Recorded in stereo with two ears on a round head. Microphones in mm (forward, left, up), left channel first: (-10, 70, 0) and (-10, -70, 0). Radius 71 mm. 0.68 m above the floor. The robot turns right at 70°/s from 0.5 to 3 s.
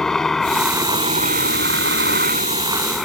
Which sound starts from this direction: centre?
A helicopter, at 0.0 s.